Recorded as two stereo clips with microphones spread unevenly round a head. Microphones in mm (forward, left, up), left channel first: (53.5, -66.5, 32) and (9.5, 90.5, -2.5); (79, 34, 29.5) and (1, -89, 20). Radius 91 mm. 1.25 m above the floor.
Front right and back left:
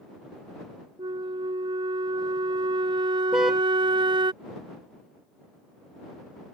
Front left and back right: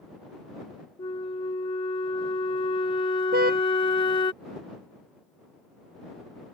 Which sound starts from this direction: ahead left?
A flute, at 1.0 s.